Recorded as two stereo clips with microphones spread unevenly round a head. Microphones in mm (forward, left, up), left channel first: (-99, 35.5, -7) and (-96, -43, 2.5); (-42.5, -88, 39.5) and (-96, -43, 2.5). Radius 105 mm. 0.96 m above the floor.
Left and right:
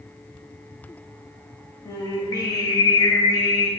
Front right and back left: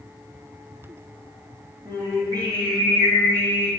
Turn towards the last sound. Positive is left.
turn(degrees=60)